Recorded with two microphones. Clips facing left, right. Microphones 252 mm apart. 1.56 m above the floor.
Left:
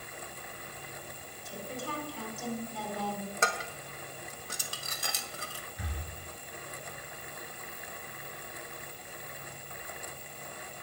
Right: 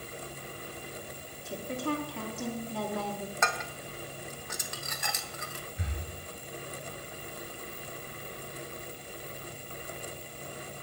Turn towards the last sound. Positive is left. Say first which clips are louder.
# right 1 dB
turn(degrees=-25)  # may be behind; listen again after turning